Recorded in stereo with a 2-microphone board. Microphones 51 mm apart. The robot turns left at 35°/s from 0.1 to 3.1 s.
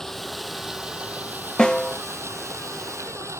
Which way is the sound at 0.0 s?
10° left.